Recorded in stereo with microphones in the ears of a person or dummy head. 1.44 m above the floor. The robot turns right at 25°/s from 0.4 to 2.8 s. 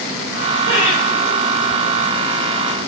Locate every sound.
0.7 s laughter: 85° right, 4 m; by 1.0 s 75° right (ahead or behind), 4 m